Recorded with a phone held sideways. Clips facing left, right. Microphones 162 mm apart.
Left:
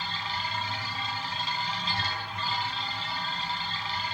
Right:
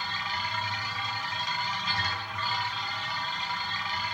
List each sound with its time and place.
0.0 s a machine running: 30° left (ahead or behind), 4.5 m